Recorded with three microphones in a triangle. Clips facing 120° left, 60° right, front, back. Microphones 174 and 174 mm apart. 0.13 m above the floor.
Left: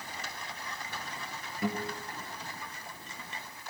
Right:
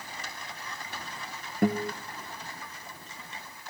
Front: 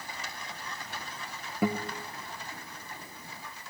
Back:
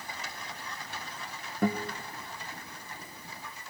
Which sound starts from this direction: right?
A guitar, at 1.6 s.